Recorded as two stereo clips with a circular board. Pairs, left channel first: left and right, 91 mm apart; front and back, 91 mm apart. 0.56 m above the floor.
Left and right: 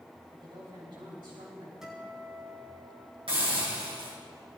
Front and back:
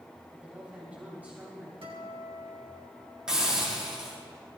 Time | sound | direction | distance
0.3 | a woman speaking | 110° right | 3.5 m
1.8 | a guitar | 175° right | 3.5 m
3.3 | a hiss | 100° right | 4 m